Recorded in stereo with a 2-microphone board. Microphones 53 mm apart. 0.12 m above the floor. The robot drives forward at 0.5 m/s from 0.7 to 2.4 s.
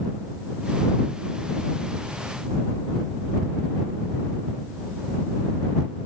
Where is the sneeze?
No sneeze in this recording.